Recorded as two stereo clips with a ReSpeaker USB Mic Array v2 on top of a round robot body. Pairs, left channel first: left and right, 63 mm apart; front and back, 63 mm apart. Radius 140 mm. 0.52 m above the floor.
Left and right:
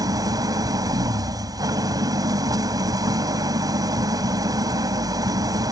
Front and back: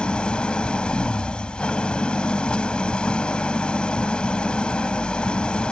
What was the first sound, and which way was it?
An engine running, 75° right.